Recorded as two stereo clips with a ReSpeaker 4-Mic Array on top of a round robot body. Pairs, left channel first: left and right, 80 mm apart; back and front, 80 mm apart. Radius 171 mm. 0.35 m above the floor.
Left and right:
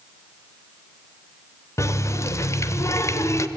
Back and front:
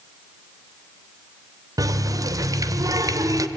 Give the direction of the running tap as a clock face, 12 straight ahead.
11 o'clock.